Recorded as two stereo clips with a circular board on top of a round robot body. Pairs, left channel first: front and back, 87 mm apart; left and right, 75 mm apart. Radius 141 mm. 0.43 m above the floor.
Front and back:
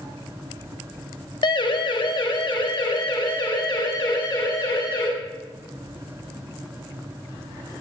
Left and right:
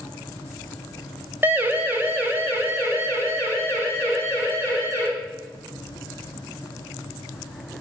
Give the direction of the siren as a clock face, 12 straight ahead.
1 o'clock.